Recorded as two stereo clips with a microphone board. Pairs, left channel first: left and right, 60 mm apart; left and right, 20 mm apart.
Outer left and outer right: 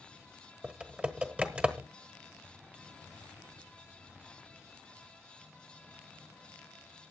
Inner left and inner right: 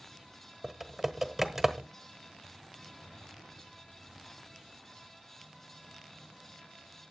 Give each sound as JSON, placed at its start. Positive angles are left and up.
{"t": 0.6, "sound": "typing on a keyboard", "side_deg": -20, "distance_m": 1.1}